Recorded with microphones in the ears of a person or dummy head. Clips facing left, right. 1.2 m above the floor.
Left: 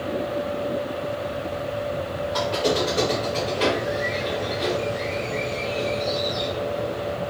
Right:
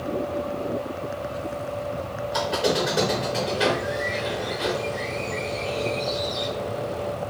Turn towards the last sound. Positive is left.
turn(degrees=-15)  # may be behind; listen again after turning